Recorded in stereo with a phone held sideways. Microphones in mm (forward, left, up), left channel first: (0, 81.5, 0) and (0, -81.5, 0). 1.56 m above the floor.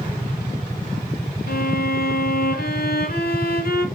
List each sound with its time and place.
1.5 s a violin: 70° left (ahead or behind), 0.9 m